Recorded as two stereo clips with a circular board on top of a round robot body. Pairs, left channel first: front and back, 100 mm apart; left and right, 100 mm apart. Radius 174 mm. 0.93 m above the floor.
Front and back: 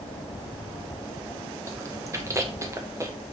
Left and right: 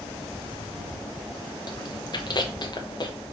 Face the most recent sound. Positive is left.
turn(degrees=125)